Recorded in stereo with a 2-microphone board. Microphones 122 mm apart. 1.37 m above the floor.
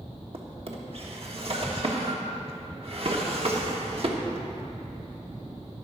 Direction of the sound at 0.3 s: 55° right (ahead or behind).